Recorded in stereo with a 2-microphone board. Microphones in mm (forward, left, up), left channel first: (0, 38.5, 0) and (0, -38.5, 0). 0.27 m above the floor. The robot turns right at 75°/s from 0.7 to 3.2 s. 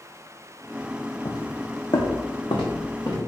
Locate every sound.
1.2 s footsteps: 65° left (ahead or behind), 0.7 m; by 3.2 s 55° left (ahead or behind), 1.9 m